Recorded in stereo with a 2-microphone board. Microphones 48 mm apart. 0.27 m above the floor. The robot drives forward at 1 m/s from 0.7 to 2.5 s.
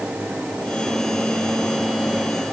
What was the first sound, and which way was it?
Only background noise.